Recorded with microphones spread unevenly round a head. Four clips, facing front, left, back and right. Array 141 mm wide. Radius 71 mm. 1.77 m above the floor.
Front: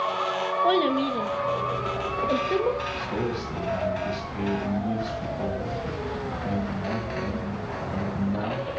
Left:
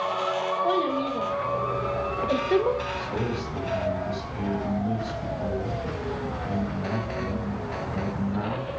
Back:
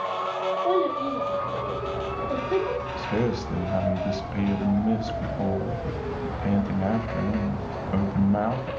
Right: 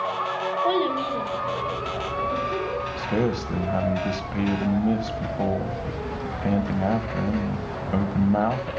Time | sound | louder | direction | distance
0.6 | a child speaking | right 3 dB, front 2 dB | 10° right | 2 m
3.0 | a man speaking | right 5 dB, back 2 dB | 105° right | 1.9 m